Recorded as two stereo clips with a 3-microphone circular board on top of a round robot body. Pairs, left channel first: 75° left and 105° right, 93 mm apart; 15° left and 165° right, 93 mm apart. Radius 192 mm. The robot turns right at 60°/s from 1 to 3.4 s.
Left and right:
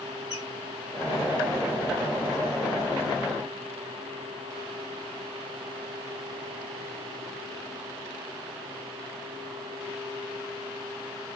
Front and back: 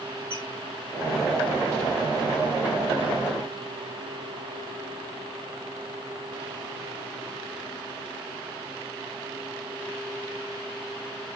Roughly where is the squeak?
Behind.